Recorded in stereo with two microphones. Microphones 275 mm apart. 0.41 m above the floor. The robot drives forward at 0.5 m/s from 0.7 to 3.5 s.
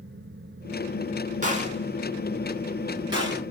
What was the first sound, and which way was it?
A gunshot, 30° right (ahead or behind).